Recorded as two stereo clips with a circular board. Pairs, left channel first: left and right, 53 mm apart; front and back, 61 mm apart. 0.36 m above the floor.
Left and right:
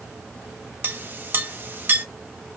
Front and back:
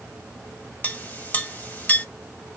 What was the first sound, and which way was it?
A clink, 55° right.